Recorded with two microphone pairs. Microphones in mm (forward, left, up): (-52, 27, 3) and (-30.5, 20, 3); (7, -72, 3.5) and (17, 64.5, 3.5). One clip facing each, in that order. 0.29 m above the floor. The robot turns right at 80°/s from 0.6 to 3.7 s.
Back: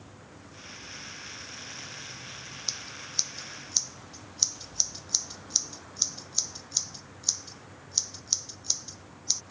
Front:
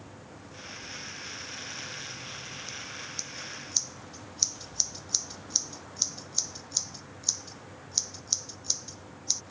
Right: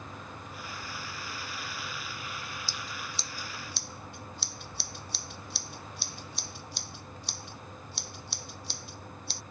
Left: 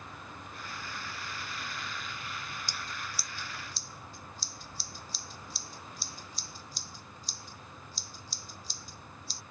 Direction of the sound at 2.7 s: 160° left.